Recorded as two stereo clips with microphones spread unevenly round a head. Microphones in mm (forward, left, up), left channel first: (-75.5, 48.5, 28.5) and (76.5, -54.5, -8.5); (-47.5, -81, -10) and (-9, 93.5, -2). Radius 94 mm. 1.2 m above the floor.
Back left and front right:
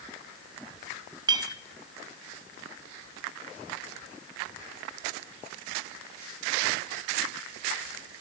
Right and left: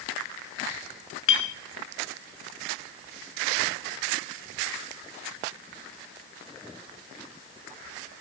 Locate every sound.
1.3 s a clink: 105° right, 1.0 m